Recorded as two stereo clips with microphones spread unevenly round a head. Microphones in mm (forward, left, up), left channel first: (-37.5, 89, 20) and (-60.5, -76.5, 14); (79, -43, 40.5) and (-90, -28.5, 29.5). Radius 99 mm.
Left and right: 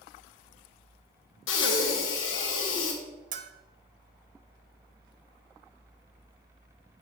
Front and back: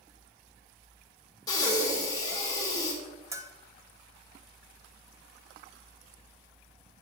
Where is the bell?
115° right, 0.8 m.